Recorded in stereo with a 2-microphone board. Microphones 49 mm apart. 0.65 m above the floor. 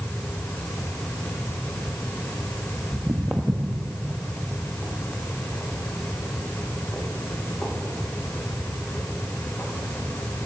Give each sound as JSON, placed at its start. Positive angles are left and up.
{"t": 2.9, "sound": "footsteps", "side_deg": -15, "distance_m": 0.9}